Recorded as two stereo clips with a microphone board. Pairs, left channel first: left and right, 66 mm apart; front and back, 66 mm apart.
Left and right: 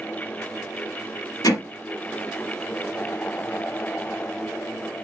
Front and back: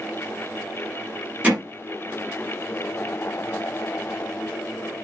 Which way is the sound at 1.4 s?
110° left.